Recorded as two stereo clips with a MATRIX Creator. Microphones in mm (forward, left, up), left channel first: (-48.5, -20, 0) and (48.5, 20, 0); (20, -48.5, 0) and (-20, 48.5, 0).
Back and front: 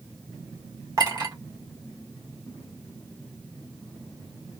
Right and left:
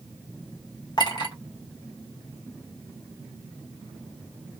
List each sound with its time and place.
1.0 s a clink: 25° right, 1.0 m